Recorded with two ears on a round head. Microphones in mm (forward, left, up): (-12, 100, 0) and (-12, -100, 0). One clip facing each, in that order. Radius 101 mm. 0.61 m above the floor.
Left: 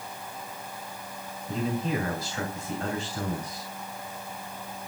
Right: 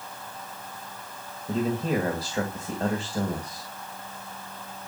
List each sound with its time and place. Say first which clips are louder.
1.5 s a man speaking: right 3 dB; 35° right (ahead or behind), 2.5 m